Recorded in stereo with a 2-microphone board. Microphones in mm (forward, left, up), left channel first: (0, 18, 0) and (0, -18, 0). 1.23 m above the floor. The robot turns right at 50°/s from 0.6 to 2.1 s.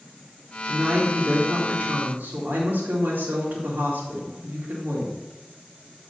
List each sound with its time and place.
0.7 s a woman speaking: 165° right, 2 m; by 5.2 s 95° right, 2 m